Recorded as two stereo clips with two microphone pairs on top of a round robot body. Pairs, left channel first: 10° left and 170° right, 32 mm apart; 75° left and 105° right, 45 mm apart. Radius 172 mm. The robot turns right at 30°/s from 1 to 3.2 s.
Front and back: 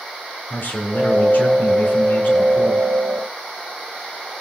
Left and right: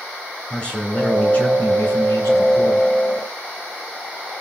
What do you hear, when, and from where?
0.5 s a man speaking: 5° left, 3 m; by 2.9 s 60° left, 3 m